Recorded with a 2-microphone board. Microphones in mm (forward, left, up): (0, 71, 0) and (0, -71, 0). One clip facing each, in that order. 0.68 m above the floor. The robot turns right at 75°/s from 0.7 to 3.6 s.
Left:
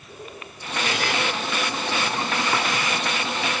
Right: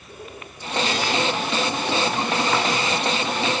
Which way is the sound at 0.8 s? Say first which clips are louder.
Even; 50° left (ahead or behind).